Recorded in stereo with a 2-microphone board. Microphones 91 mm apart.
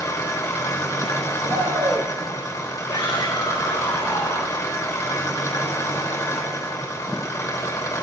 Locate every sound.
0.0 s an engine running: 35° left (ahead or behind), 1.5 m
1.4 s a shout: 30° right (ahead or behind), 2.5 m
2.9 s a shout: 60° left (ahead or behind), 2 m